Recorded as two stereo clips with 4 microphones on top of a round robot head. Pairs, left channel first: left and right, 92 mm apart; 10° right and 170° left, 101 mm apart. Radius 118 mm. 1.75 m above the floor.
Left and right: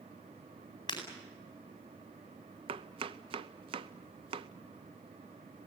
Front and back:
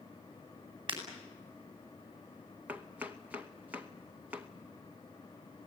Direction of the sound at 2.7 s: 110° right.